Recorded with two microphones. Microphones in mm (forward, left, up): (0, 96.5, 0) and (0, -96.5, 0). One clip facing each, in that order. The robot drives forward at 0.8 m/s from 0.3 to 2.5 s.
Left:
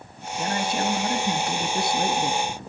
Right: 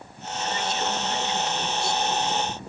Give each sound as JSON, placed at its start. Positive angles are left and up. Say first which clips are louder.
{"t": 0.4, "sound": "a man speaking", "louder": "left 3 dB", "side_deg": 55, "distance_m": 4.0}